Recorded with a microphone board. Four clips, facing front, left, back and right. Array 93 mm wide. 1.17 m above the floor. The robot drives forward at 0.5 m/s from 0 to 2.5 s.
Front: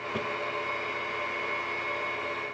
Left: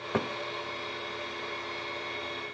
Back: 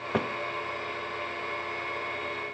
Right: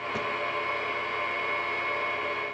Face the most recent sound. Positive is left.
turn(degrees=170)